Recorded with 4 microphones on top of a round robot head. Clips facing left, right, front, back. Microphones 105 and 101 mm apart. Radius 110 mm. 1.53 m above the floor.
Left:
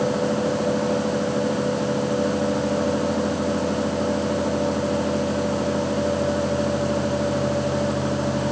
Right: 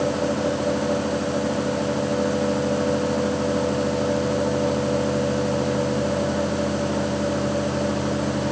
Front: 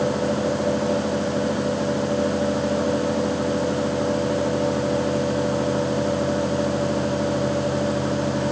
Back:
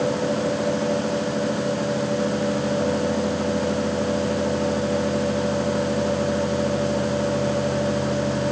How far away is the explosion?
I don't hear an explosion.